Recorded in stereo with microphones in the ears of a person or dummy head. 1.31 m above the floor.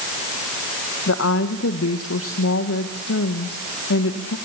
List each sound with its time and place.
1.1 s a woman speaking: 70° left (ahead or behind), 1.6 m